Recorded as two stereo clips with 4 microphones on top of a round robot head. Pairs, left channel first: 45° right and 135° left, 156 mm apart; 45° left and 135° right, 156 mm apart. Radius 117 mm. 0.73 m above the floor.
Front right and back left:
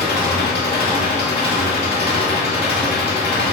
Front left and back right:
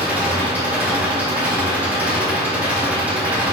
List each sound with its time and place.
0.0 s an engine running: 55° right, 2.5 m